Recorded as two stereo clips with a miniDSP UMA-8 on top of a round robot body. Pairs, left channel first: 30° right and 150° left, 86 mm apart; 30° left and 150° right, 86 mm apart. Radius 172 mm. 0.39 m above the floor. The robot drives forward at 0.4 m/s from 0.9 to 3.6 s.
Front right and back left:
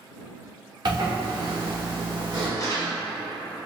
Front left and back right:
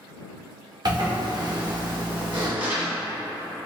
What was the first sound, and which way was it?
A zipper, 175° left.